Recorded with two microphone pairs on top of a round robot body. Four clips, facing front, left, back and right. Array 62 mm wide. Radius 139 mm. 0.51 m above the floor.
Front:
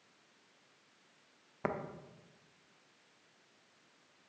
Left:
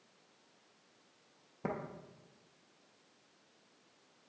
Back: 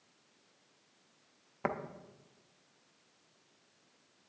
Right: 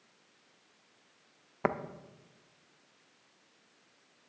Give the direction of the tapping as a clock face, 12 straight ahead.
3 o'clock.